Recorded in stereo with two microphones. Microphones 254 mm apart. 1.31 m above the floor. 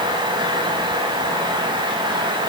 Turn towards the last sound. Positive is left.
No sound to turn to.